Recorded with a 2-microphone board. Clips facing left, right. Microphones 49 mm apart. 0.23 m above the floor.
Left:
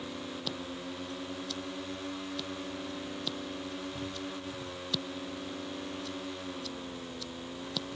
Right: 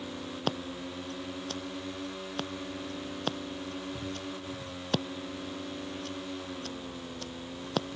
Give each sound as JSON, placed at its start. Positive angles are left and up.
{"t": 0.5, "sound": "scissors", "side_deg": -45}